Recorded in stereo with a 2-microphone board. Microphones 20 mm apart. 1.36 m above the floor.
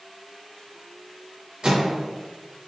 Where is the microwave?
45° right (ahead or behind), 0.9 m.